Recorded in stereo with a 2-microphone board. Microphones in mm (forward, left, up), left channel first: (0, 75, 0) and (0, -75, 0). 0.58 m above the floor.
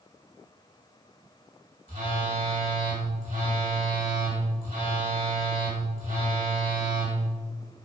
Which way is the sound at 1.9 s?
65° right (ahead or behind).